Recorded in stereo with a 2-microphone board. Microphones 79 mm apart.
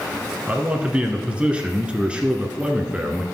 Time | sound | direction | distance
0.5 | a man speaking | 15° right (ahead or behind) | 1.1 m